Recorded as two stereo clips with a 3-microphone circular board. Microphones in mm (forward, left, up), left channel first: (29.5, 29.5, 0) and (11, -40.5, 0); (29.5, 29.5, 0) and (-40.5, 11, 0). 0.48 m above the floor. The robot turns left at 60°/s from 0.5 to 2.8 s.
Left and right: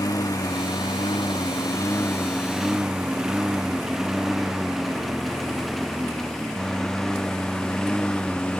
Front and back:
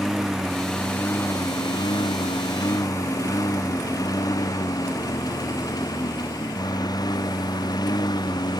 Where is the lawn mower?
110° left; by 8.6 s straight ahead.